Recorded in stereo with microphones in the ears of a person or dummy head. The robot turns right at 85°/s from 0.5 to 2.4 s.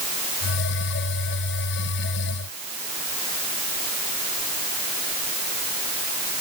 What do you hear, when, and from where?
Only background noise.